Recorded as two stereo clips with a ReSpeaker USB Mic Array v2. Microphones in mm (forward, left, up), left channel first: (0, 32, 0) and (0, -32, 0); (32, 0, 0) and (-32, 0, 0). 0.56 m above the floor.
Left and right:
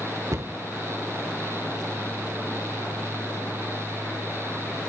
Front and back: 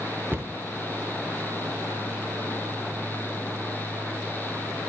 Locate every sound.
0.3 s a cupboard door: 120° right, 0.7 m